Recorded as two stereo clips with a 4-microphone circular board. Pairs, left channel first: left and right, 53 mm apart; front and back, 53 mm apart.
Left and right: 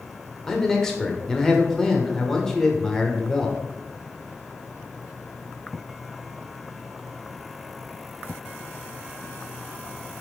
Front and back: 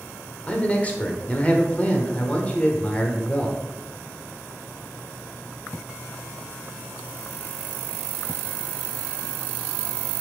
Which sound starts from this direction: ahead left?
A man speaking, at 0.5 s.